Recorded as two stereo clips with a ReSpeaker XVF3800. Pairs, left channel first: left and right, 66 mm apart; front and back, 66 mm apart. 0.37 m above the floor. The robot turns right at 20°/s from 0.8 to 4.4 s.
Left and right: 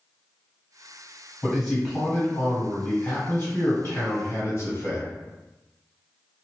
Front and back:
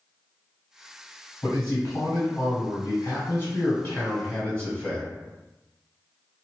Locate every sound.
1.4 s a man speaking: straight ahead, 1.7 m; by 5.1 s 60° left, 1.7 m